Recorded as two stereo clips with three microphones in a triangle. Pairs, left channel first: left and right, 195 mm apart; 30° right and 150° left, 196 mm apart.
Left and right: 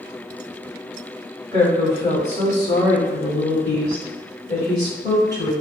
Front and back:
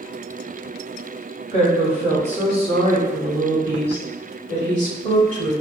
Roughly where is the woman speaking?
Behind left.